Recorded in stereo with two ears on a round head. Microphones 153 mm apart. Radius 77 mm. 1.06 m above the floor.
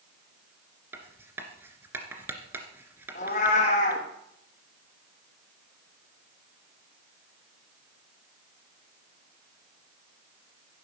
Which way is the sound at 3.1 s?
45° left (ahead or behind).